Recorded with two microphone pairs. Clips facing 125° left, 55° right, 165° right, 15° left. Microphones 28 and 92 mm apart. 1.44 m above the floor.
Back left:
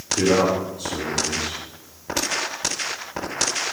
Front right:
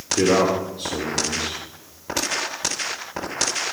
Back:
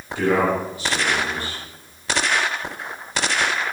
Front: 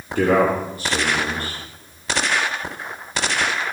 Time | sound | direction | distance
0.1 | a man speaking | 15° right | 4 m